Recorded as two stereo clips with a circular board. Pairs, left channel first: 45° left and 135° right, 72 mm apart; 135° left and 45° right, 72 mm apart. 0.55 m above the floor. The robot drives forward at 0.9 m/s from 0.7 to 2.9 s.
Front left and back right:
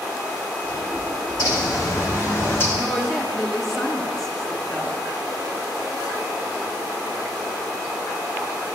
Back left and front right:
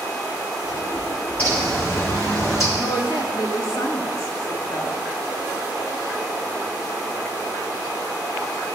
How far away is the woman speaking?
About 1.0 m.